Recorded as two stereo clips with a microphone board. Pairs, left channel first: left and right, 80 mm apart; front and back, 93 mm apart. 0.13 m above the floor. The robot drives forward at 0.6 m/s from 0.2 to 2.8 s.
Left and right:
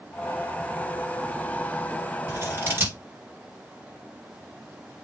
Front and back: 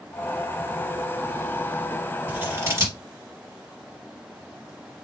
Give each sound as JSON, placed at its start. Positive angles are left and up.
{"t": 2.3, "sound": "scissors", "azimuth_deg": -125, "distance_m": 1.9}